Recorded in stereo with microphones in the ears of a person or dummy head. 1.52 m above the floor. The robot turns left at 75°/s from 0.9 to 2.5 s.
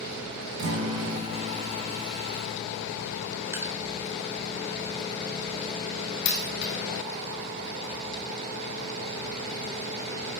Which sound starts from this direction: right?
A guitar, at 0.6 s.